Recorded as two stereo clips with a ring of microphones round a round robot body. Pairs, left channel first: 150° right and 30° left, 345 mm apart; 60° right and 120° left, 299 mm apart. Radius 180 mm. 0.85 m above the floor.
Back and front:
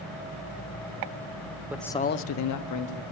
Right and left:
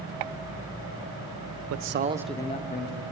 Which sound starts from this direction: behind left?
A man speaking, at 1.7 s.